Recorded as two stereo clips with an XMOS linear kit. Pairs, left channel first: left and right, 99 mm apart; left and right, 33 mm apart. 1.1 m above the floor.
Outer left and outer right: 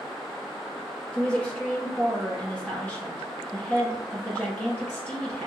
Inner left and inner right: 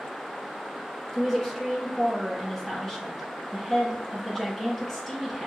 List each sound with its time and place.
1.1 s a woman speaking: 15° left (ahead or behind), 1.4 m